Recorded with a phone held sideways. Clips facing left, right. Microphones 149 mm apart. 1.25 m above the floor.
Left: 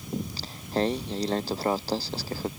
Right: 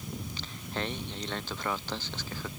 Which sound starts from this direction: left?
Singing, at 0.1 s.